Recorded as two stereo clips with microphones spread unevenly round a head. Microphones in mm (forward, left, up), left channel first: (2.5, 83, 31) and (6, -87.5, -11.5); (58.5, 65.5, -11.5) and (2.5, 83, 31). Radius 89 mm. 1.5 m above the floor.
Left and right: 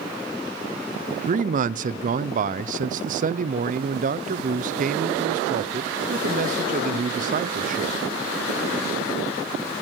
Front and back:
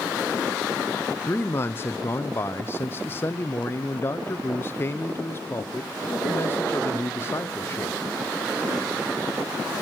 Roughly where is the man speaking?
Ahead right.